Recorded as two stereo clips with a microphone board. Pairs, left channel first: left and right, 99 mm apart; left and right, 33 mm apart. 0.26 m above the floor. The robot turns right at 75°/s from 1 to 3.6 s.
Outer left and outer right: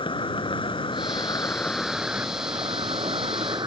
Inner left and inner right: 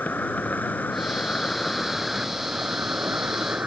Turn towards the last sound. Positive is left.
turn(degrees=-50)